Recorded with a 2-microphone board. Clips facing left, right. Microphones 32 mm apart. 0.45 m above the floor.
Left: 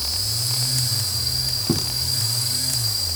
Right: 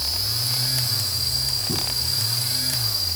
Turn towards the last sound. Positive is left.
turn(degrees=65)  # may be behind; listen again after turning